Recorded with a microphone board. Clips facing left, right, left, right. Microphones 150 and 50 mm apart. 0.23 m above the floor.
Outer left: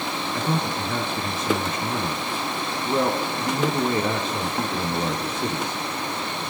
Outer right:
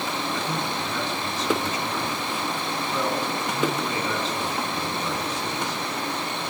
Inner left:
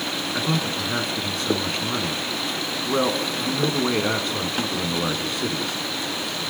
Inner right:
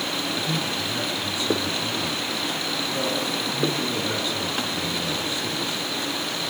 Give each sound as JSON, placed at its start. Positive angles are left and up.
{"t": 0.3, "sound": "a man speaking", "side_deg": 55, "distance_m": 2.0}